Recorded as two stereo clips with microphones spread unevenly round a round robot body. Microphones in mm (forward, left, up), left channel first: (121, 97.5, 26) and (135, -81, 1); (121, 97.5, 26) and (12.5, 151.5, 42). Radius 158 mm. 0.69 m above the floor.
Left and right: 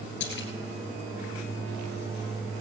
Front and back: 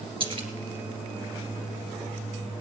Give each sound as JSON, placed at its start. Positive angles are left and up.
{"t": 0.2, "sound": "a splash", "azimuth_deg": 115, "distance_m": 2.0}